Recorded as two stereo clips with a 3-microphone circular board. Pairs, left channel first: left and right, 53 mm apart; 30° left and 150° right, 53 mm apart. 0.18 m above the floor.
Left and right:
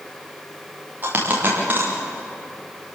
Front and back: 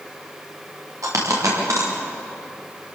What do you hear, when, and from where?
1.0 s a dropped coin: 145° right, 7 m